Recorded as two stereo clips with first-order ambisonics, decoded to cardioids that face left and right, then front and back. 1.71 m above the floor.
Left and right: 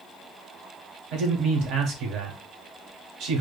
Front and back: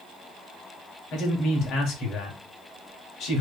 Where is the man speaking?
45° right, 0.9 m.